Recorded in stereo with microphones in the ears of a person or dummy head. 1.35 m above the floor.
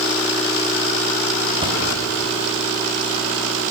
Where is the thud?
20° right (ahead or behind), 2.5 m.